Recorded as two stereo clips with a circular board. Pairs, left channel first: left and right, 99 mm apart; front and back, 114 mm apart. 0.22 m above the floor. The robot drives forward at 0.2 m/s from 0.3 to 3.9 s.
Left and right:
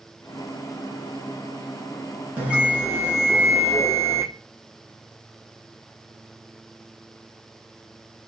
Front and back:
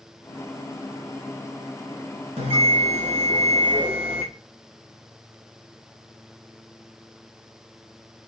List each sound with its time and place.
2.4 s a bell: 165° right, 2 m